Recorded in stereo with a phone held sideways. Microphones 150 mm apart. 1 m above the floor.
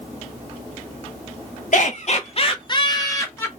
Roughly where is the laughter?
Left.